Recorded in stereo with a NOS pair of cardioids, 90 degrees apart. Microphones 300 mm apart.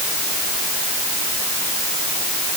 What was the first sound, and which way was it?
Only background noise.